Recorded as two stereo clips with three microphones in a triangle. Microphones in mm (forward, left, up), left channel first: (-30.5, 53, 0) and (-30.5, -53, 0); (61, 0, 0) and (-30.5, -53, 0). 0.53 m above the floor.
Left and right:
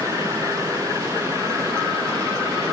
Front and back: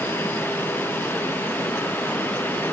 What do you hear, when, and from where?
Only background noise.